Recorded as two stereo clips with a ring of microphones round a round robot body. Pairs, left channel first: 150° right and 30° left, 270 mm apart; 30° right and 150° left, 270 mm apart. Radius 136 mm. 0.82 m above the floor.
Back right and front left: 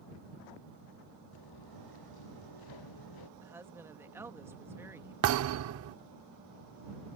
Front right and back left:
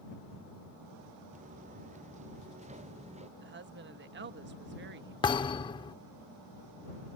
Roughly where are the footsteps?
Behind right.